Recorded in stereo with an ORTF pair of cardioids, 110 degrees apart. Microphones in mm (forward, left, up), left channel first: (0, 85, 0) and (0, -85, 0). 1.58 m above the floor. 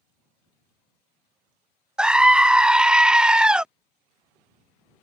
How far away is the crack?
No crack in this recording.